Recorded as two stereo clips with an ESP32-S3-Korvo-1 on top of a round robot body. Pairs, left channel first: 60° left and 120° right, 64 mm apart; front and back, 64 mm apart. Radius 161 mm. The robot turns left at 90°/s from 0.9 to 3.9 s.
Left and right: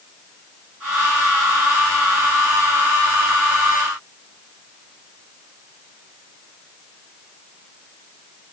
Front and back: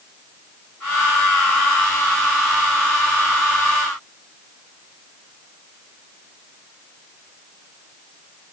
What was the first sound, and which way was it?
Only background noise.